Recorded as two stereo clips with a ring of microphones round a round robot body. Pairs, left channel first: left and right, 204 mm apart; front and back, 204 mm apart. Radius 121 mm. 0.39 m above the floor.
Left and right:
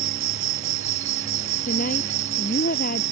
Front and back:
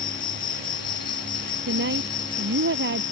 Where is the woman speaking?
145° left.